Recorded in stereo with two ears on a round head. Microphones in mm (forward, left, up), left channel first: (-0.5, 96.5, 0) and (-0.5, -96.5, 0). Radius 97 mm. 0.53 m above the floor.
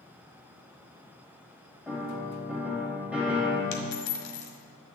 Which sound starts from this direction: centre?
A piano, at 1.9 s.